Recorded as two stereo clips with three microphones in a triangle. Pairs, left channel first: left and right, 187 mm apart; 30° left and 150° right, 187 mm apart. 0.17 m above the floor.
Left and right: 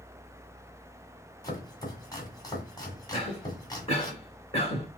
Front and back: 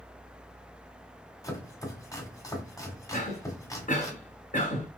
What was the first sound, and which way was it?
Chopping, 65° left.